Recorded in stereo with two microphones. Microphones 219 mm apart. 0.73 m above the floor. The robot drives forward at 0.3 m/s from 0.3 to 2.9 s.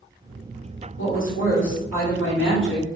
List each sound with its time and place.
1.0 s a woman speaking: 65° left (ahead or behind), 1.9 m